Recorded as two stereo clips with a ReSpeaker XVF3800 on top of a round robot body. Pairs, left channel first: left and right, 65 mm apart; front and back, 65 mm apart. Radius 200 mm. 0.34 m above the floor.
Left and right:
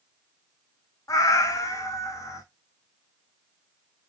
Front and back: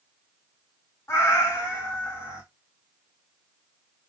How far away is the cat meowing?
About 0.5 m.